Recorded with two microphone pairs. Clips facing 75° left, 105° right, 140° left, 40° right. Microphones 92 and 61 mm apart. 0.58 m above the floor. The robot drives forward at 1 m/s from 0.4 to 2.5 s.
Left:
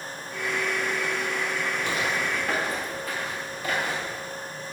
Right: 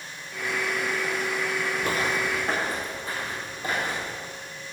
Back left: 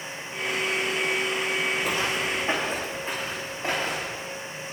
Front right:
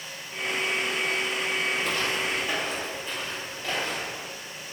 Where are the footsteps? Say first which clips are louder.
Right 2 dB, back left 1 dB; 135° right, 1.1 m; by 4.2 s 170° right, 5 m.